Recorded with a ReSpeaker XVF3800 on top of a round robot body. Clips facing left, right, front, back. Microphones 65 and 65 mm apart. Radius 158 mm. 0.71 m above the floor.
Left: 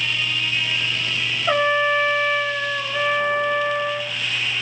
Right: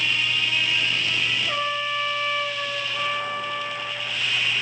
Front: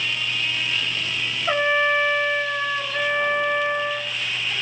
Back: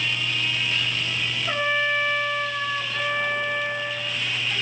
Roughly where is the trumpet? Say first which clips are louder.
Left 8 dB, front 5 dB; left.